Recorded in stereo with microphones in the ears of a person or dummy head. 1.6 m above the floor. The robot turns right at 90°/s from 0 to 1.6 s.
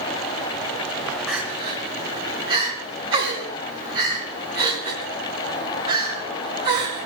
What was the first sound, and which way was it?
Crying, 5° left (ahead or behind).